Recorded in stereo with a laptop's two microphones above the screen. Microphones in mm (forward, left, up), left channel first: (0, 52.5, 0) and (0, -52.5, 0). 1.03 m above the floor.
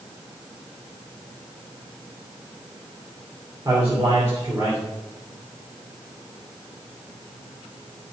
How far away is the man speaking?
About 3 m.